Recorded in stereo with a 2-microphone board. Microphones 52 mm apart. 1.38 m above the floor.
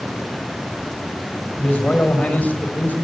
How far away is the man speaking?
About 6.5 m.